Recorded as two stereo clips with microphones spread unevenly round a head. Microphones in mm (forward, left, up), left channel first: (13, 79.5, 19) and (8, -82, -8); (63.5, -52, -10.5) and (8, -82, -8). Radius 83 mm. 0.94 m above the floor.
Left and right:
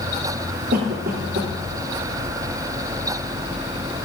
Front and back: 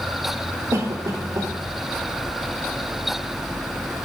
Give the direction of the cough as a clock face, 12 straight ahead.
4 o'clock.